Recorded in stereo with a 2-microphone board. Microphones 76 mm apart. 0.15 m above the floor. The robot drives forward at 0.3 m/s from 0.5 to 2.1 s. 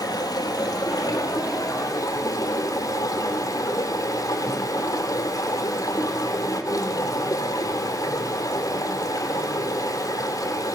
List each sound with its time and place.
0.0 s running water: 60° left (ahead or behind), 1.7 m; by 10.8 s 50° left (ahead or behind), 2.0 m